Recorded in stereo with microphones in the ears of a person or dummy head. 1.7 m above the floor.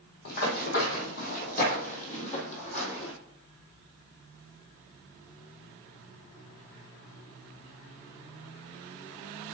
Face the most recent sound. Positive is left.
turn(degrees=45)  # may be behind; listen again after turning